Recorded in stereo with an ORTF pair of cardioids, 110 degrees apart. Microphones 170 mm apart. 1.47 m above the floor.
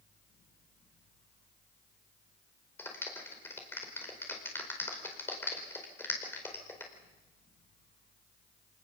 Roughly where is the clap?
Ahead.